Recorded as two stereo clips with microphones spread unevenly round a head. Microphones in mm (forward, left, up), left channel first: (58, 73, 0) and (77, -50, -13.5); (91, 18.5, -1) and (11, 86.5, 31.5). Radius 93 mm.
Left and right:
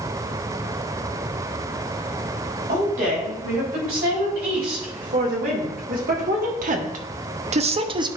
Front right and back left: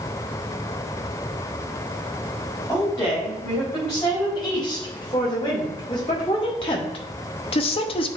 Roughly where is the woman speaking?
Right.